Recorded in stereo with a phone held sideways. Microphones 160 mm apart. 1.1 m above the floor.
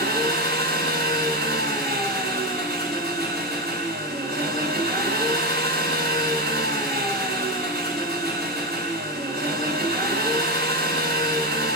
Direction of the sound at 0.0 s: 85° right.